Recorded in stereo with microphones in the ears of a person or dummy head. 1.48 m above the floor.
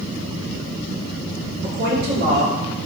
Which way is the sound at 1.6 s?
65° right (ahead or behind).